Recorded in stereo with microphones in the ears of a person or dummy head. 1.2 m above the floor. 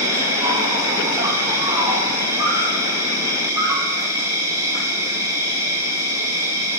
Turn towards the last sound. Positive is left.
turn(degrees=-20)  # may be behind; listen again after turning